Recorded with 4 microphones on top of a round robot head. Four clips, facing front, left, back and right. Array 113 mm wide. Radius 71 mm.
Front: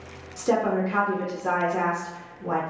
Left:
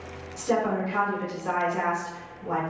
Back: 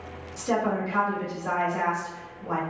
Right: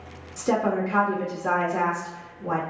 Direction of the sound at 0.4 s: 55° right.